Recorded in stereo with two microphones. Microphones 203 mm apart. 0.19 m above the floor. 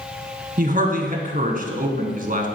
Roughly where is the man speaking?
Right.